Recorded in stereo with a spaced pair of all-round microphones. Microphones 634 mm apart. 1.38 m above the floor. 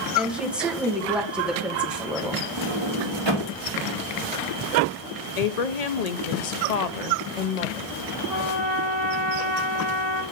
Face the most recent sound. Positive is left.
turn(degrees=75)  # may be behind; listen again after turning